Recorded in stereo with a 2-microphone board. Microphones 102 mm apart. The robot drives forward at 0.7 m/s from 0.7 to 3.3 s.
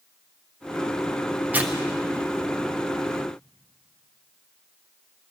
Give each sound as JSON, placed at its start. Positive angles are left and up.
{"t": 1.5, "sound": "tearing paper", "side_deg": -15, "distance_m": 0.9}